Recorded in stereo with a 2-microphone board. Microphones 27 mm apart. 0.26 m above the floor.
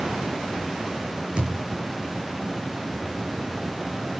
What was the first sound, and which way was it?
A thud, 40° right (ahead or behind).